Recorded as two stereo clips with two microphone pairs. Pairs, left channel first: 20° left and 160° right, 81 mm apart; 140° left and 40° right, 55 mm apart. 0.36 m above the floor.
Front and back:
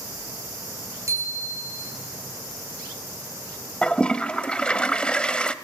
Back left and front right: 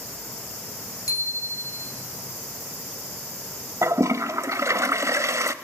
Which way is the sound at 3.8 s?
50° right.